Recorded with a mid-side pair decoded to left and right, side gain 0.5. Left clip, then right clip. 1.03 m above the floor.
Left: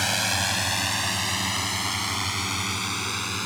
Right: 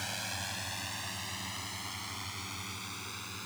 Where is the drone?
65° left; by 3.5 s 70° left.